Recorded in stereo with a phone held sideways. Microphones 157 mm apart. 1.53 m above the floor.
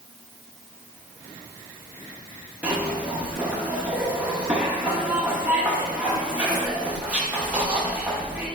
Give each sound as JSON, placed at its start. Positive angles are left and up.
{"t": 2.6, "sound": "a zipper", "side_deg": -10, "distance_m": 1.0}